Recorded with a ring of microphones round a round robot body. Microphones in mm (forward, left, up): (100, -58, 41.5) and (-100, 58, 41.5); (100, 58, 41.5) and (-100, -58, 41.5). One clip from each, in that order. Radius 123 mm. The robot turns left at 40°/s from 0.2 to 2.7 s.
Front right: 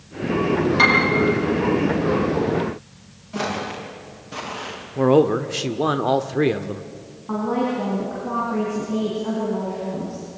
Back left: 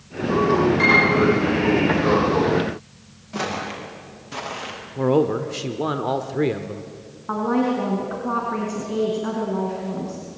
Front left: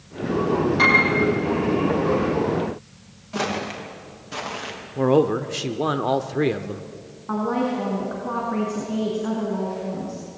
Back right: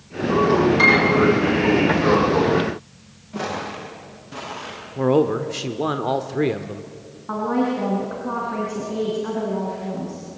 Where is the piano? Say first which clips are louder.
Front right 1 dB, even; 65° right, 8.5 m; by 1.0 s 75° right, 8.5 m.